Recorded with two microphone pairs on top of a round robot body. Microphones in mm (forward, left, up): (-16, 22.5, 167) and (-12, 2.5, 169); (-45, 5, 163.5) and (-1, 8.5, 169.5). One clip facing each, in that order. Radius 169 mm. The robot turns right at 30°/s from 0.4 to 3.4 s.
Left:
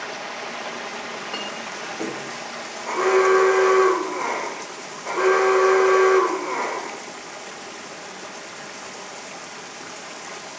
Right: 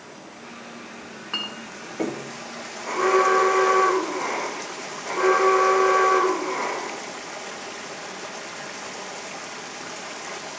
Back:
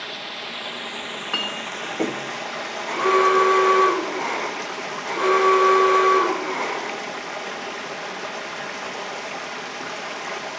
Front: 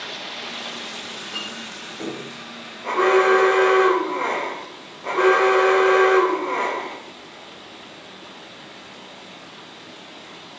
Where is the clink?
165° right, 1.9 m; by 2.2 s 130° right, 1.9 m.